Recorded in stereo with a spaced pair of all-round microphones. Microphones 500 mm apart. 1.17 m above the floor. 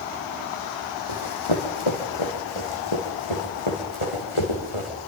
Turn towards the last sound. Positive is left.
turn(degrees=75)  # may be behind; listen again after turning